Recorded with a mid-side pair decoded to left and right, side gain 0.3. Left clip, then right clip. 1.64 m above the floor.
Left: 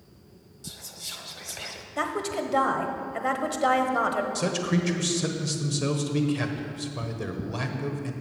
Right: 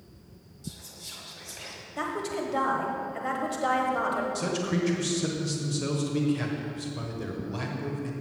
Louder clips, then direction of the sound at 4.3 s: Left 2 dB; 40° left.